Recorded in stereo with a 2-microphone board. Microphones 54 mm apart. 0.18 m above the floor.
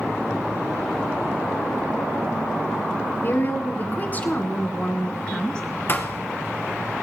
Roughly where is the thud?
Left.